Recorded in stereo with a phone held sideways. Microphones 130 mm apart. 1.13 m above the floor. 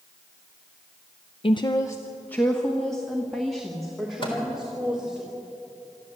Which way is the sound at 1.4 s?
45° left (ahead or behind).